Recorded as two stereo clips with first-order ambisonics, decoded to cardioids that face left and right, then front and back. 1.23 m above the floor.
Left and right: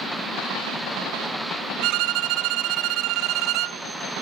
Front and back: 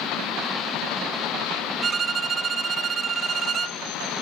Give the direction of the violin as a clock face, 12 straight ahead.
4 o'clock.